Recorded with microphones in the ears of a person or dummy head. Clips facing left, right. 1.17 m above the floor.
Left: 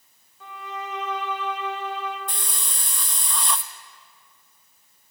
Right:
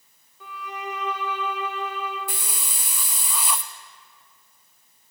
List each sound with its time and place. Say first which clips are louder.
0.4 s a violin: even; 75° right (ahead or behind), 3 m
2.3 s a hiss: right 1 dB; 5° right (ahead or behind), 0.5 m